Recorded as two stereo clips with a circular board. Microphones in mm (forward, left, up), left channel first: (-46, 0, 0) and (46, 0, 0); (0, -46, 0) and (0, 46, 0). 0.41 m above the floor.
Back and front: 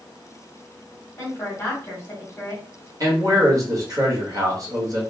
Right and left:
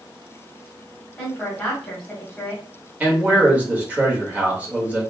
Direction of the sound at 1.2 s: 165° right.